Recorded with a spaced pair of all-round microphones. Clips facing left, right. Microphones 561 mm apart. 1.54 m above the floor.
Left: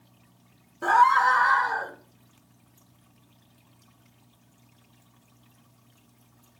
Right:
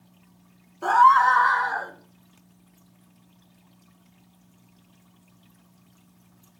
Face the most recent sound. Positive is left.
turn(degrees=50)  # may be behind; listen again after turning